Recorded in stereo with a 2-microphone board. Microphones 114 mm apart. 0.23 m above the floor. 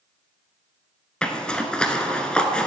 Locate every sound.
1.2 s a zipper: 10° left (ahead or behind), 0.8 m